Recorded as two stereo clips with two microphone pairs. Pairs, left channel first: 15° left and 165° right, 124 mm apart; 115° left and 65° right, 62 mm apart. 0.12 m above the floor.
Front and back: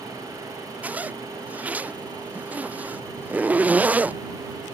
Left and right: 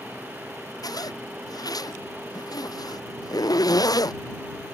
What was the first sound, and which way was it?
A zipper, 115° left.